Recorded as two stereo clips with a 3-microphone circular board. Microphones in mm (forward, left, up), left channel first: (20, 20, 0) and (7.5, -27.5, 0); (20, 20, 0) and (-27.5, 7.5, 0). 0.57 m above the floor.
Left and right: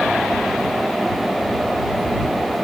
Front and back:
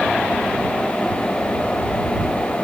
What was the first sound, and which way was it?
Only background noise.